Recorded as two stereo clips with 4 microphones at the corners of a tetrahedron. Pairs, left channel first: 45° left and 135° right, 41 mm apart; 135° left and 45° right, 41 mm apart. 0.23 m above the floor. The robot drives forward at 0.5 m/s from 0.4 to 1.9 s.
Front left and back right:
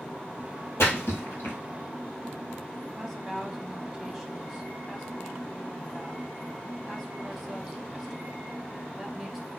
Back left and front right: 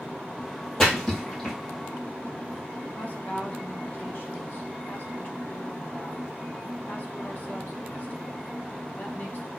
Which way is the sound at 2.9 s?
140° left.